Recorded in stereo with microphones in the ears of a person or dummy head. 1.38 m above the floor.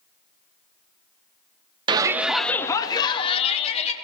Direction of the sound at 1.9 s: 25° right (ahead or behind).